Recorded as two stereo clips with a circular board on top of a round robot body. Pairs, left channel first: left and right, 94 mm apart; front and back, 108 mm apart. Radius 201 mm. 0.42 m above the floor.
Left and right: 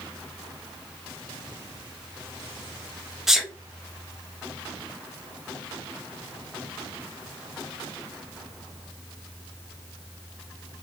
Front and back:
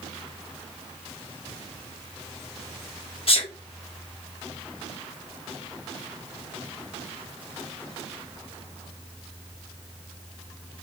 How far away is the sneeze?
About 1.8 m.